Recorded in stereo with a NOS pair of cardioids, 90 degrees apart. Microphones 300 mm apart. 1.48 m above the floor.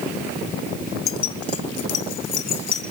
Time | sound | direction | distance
1.1 | keys jangling | 50° left | 1.1 m